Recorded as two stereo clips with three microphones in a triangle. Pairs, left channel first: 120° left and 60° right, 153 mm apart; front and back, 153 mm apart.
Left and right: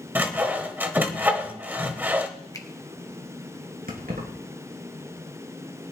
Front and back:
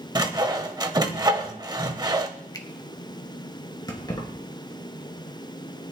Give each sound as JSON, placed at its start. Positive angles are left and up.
{"t": 0.1, "sound": "sawing", "azimuth_deg": -135, "distance_m": 1.1}
{"t": 2.5, "sound": "a finger snap", "azimuth_deg": 60, "distance_m": 1.2}
{"t": 3.9, "sound": "keys jangling", "azimuth_deg": -60, "distance_m": 3.0}